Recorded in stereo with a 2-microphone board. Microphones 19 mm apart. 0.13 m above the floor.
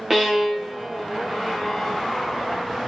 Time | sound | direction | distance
0.1 | a violin | 15° right (ahead or behind) | 2.5 m